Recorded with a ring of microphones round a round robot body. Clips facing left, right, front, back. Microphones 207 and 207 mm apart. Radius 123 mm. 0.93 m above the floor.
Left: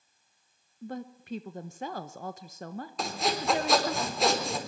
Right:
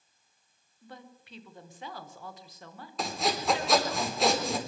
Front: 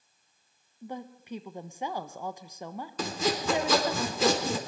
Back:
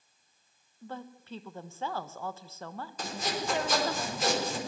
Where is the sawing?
Straight ahead, 4 m.